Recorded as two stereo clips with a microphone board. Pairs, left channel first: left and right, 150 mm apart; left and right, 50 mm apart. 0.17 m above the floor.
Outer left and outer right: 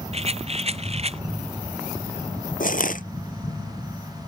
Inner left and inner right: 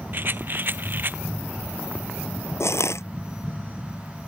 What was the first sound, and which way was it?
A rattle, 45° right (ahead or behind).